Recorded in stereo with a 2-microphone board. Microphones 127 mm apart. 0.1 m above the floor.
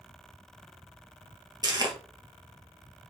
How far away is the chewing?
About 1.3 m.